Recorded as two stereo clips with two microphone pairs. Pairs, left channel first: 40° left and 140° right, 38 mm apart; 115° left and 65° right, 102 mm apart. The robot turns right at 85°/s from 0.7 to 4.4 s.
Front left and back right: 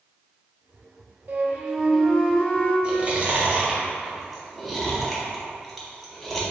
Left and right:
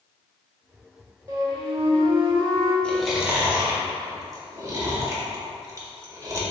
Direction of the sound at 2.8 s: 175° right.